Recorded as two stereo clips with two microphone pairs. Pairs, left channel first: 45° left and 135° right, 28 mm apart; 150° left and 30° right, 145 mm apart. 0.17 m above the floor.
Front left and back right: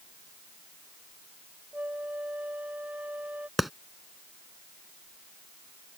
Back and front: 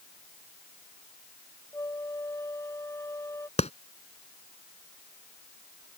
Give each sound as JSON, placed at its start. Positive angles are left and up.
{"t": 1.7, "sound": "a flute", "azimuth_deg": -145}
{"t": 3.6, "sound": "a clap", "azimuth_deg": 140}